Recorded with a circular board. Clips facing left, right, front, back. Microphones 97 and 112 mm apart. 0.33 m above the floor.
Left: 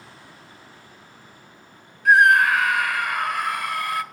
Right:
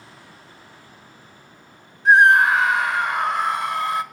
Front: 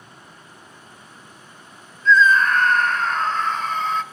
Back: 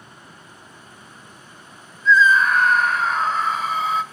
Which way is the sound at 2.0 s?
105° right.